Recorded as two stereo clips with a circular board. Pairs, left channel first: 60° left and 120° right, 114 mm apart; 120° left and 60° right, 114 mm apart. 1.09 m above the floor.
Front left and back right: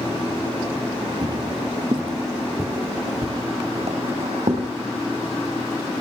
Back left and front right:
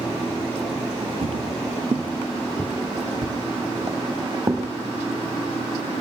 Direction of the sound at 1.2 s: 75° right.